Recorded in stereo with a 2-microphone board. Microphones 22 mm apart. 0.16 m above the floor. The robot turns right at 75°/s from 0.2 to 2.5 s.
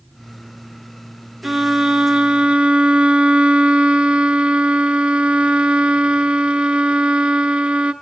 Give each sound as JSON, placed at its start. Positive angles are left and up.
{"t": 1.4, "sound": "a violin", "azimuth_deg": -155, "distance_m": 0.8}